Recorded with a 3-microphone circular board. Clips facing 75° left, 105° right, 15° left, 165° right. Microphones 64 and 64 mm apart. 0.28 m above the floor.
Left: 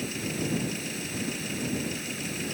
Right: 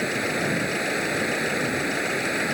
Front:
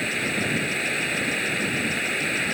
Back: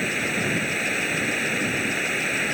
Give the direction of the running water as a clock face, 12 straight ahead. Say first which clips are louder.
Right 7 dB, back 1 dB; 3 o'clock.